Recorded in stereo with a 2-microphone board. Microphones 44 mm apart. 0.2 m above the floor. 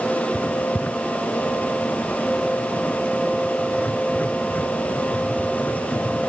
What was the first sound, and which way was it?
Writing, 40° left (ahead or behind).